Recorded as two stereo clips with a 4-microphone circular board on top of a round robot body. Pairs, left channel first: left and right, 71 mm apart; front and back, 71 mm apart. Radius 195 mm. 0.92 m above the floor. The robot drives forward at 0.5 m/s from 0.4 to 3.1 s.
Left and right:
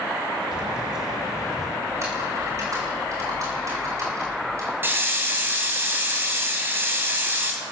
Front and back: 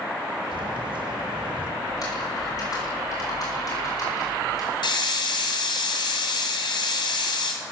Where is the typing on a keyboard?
40° right, 6.5 m.